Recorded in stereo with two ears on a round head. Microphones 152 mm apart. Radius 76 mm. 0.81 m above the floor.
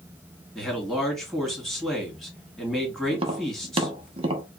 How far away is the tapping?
About 0.8 m.